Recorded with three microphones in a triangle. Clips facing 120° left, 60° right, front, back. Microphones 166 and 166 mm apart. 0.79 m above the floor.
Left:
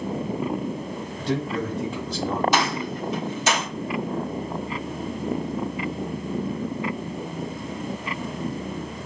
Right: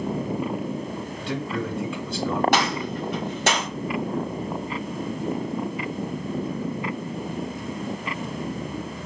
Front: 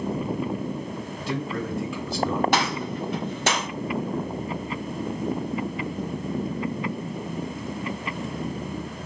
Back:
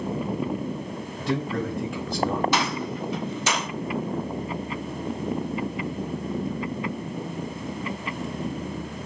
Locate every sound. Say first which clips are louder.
1.2 s a man speaking: left 3 dB, back 3 dB; 155° left, 1.5 m
2.5 s a gunshot: right 1 dB, front 1 dB; 30° right, 1.3 m